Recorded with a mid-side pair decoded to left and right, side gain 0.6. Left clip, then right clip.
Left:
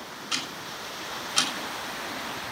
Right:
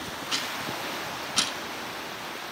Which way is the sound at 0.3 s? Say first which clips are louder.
Right 1 dB; 15° left.